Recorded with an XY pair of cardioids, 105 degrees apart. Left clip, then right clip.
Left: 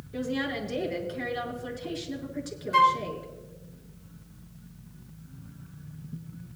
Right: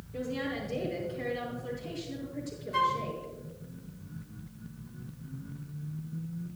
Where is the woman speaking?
65° left, 5.5 m.